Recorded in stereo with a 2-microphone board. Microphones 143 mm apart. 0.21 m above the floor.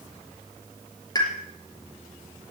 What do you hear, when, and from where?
1.1 s a pop: 30° left (ahead or behind), 4.5 m